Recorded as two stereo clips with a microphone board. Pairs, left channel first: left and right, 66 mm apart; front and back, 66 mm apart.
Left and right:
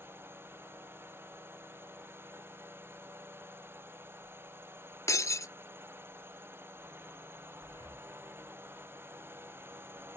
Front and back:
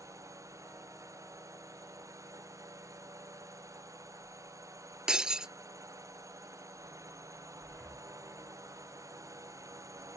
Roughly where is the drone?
Behind right.